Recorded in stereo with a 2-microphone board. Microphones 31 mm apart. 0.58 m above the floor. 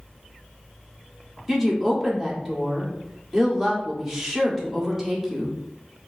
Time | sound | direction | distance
1.5 | a woman speaking | 5° right (ahead or behind) | 1.4 m